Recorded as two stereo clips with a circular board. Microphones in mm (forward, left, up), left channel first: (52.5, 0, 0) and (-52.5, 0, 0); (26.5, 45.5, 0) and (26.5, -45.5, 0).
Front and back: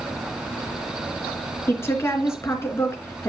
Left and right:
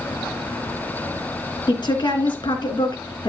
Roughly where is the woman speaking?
Ahead left.